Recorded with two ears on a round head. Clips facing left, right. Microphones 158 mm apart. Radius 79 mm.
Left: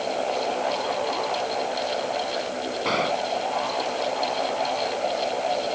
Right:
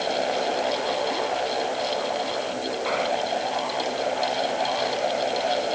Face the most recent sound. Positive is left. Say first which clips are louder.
# left 1 dB
turn(degrees=50)  # may be behind; listen again after turning